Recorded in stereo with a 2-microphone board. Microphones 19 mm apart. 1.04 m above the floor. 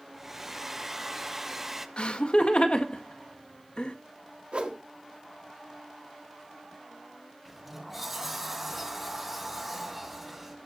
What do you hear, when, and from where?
0.1 s a hair dryer: 15° right (ahead or behind), 0.9 m
2.0 s laughter: 70° left (ahead or behind), 1.7 m
4.5 s a whoosh: 65° right (ahead or behind), 1.6 m
7.5 s a sliding door: 10° right (ahead or behind), 1.5 m